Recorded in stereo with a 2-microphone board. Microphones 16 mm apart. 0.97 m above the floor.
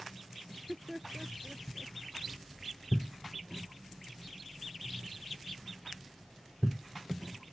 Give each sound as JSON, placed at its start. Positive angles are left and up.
{"t": 0.5, "sound": "laughter", "side_deg": -10}